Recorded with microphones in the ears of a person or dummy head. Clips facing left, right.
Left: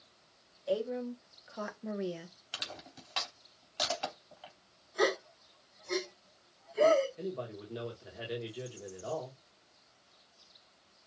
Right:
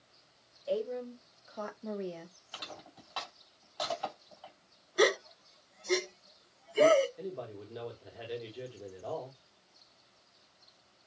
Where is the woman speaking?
5° left (ahead or behind), 1.9 m; by 2.4 s 10° left (ahead or behind), 0.9 m.